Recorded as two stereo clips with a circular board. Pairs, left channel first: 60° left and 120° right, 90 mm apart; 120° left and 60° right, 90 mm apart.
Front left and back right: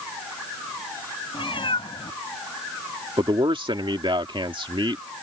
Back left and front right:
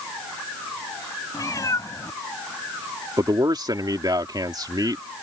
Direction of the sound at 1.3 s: 70° left.